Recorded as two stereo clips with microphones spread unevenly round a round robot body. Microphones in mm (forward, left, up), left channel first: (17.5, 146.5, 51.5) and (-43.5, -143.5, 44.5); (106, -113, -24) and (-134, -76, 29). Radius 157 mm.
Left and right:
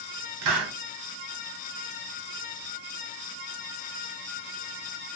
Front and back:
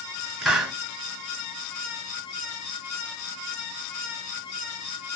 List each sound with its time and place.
0.4 s a hiss: 105° right, 1.2 m